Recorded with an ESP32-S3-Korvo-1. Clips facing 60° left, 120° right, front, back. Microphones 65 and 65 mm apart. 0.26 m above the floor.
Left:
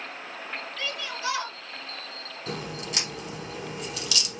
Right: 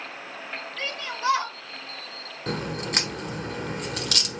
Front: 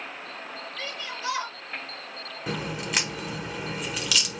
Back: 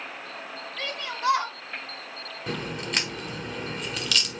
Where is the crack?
85° right, 1.2 m.